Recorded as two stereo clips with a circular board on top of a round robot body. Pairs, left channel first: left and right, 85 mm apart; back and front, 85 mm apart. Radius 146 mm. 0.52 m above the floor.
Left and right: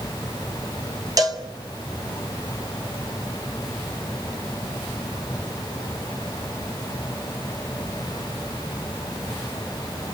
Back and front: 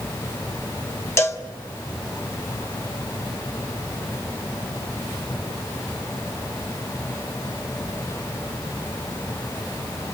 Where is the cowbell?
125° right, 2.5 m.